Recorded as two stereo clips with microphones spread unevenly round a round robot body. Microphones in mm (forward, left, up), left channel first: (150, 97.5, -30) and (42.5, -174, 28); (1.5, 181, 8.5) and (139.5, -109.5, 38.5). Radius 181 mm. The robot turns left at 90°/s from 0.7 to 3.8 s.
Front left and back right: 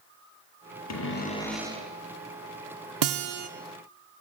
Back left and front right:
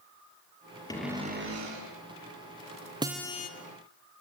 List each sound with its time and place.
0.9 s a cupboard door: 35° left, 5.5 m; by 1.9 s 55° right, 5.5 m
3.0 s a guitar: 145° right, 0.9 m; by 3.5 s 175° left, 0.9 m